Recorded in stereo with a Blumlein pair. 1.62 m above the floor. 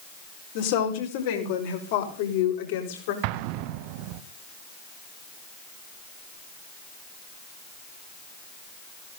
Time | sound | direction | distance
0.6 | a woman speaking | 50° left | 5 m
3.2 | an explosion | 45° right | 0.9 m